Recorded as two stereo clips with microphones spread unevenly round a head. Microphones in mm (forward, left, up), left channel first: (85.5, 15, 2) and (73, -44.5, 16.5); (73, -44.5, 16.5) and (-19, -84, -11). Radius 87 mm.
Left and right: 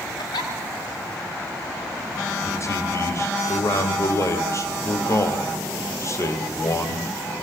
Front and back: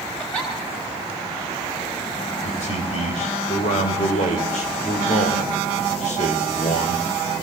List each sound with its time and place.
0.2 s a giggle: 105° left, 3 m
2.4 s a man speaking: 40° left, 4 m